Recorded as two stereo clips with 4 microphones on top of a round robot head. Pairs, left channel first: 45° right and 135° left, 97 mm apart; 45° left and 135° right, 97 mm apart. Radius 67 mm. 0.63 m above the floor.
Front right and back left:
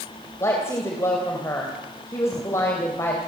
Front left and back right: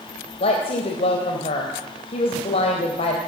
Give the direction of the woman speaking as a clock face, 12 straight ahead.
11 o'clock.